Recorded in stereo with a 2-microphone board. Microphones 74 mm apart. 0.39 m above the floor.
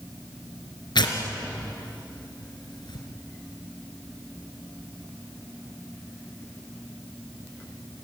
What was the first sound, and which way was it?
Tearing paper, 85° left.